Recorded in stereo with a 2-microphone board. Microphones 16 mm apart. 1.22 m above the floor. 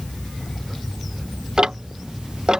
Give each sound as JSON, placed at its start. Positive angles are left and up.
{"t": 1.6, "sound": "ticking", "side_deg": -60}